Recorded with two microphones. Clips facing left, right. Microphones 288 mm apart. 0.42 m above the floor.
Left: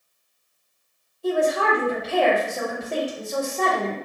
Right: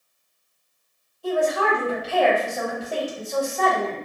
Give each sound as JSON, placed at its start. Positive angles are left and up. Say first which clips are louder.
{"t": 1.2, "sound": "a woman speaking", "louder": "left 1 dB", "side_deg": 25, "distance_m": 1.9}